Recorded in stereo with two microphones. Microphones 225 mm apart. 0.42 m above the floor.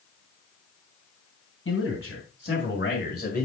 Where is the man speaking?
60° left (ahead or behind), 3.5 m; by 3.5 s 40° left (ahead or behind), 1.7 m.